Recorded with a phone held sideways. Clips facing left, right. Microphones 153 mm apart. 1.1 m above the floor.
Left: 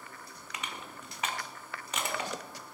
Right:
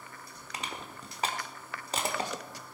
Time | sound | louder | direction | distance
0.5 | crushing | right 2 dB | 35° right (ahead or behind) | 1.5 m